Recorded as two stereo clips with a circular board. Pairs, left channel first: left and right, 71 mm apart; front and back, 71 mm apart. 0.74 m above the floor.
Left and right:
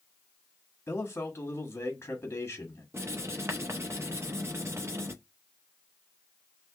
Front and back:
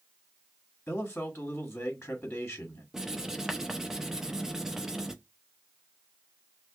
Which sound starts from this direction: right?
Writing, at 2.9 s.